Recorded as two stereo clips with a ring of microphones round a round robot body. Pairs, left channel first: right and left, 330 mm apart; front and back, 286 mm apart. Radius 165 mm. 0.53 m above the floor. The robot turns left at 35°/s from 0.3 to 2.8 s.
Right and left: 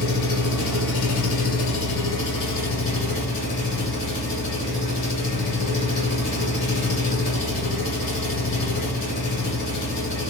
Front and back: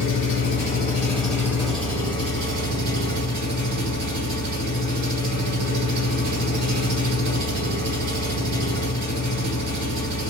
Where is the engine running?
55° right, 1.6 m; by 10.3 s 140° right, 1.6 m.